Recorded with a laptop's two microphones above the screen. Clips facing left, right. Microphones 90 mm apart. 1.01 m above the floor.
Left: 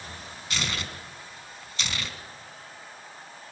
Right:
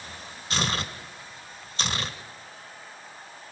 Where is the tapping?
I don't hear tapping.